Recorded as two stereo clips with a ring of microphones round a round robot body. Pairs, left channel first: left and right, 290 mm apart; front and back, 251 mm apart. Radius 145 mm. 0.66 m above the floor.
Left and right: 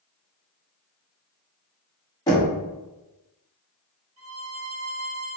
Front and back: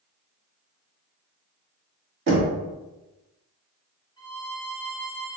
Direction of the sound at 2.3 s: 160° left.